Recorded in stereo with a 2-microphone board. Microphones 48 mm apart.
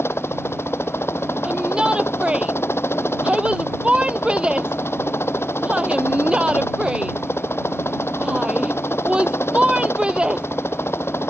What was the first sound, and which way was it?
A helicopter, 60° left (ahead or behind).